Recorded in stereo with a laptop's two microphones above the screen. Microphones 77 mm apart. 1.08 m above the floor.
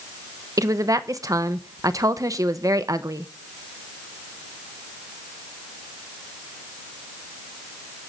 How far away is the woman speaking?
About 0.9 m.